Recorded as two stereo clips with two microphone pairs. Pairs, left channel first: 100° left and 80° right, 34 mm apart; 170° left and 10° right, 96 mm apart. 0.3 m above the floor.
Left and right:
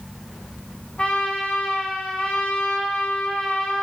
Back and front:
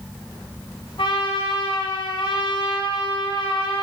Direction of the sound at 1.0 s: 160° left.